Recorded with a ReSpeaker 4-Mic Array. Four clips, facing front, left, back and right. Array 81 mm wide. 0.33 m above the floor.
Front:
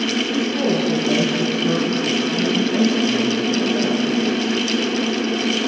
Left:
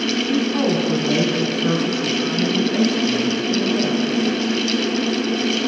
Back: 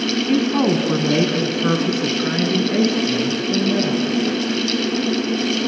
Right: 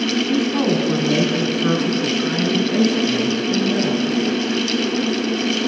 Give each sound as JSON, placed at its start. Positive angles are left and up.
{"t": 0.3, "sound": "a woman speaking", "azimuth_deg": -175, "distance_m": 3.0}